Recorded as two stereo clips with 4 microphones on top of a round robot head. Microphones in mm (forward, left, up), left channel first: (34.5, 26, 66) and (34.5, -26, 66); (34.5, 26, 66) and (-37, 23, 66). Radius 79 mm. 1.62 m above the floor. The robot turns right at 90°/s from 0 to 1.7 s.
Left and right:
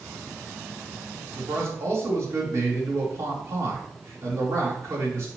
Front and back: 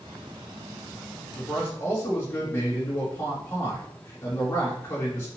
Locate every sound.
1.4 s a man speaking: 90° right, 3 m; by 5.3 s 60° right, 3 m